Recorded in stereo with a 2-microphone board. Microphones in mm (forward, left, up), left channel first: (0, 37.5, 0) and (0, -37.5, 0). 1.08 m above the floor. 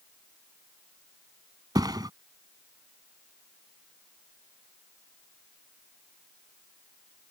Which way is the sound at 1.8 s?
60° right (ahead or behind).